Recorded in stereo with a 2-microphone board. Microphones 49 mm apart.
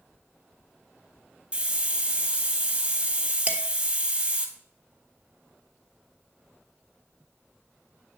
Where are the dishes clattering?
30° right (ahead or behind), 1.4 m.